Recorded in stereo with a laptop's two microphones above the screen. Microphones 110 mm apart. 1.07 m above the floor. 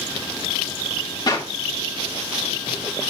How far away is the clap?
About 2.5 m.